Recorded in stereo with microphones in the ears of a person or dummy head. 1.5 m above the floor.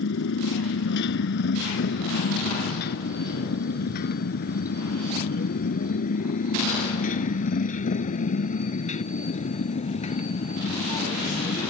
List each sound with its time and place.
0.0 s a motorcycle: 70° left (ahead or behind); by 11.7 s 35° left (ahead or behind)